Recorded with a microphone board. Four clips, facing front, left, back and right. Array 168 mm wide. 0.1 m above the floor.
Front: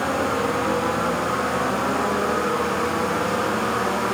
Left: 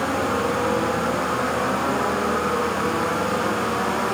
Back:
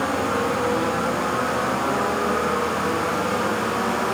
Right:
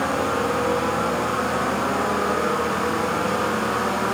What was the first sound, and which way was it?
Only background noise.